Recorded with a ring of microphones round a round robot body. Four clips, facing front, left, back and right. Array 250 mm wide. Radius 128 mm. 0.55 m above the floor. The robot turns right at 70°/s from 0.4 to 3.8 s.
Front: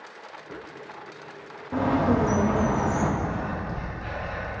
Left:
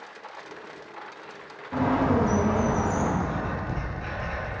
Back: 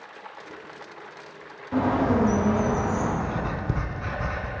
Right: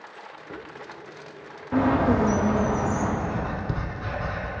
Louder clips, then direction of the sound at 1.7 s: Right 2 dB, even; 95° right.